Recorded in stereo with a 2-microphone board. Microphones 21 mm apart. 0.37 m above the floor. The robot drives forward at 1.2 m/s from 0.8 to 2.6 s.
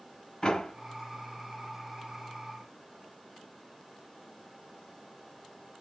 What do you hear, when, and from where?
0.4 s a door slam: 35° left (ahead or behind), 1.2 m